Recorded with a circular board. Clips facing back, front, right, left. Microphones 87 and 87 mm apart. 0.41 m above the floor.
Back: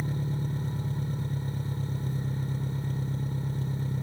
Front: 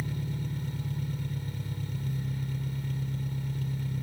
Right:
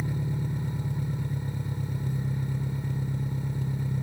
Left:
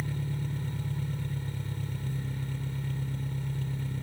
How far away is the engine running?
About 0.8 m.